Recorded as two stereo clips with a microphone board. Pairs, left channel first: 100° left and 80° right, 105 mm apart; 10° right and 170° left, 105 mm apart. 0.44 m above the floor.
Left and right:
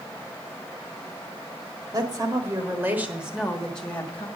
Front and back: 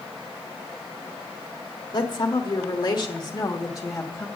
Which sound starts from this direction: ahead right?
A woman speaking, at 1.9 s.